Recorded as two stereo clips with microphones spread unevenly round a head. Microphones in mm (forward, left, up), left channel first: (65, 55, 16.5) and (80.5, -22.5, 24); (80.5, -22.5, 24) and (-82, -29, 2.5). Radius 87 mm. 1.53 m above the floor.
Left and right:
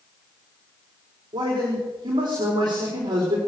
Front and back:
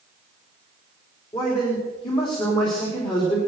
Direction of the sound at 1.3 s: 55° right.